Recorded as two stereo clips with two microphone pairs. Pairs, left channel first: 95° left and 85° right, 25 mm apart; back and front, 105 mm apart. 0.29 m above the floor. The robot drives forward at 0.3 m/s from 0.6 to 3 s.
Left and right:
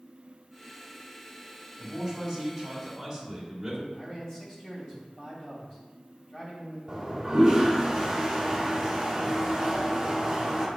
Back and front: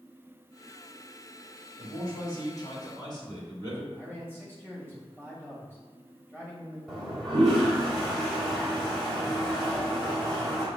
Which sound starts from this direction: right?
A toilet flushing, at 6.9 s.